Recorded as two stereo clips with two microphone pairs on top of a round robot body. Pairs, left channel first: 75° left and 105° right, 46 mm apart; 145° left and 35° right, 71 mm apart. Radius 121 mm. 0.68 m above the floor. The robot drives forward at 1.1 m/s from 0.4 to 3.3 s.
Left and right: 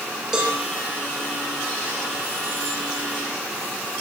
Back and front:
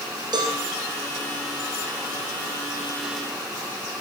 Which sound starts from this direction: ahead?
A cowbell, at 0.3 s.